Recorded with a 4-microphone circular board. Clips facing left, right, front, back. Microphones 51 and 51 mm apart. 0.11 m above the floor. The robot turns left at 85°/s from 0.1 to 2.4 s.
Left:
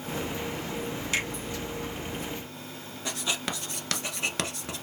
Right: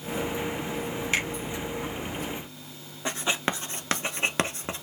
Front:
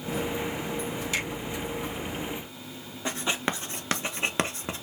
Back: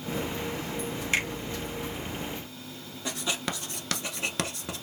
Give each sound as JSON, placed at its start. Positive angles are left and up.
{"t": 1.1, "sound": "a finger snap", "azimuth_deg": -145, "distance_m": 2.5}
{"t": 3.0, "sound": "writing", "azimuth_deg": -45, "distance_m": 0.6}